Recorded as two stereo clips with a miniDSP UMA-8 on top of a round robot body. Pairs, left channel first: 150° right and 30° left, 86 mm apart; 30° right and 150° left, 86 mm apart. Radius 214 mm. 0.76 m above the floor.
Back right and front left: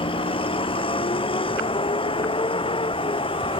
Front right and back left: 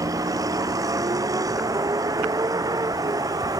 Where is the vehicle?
160° right; by 3.6 s 165° right.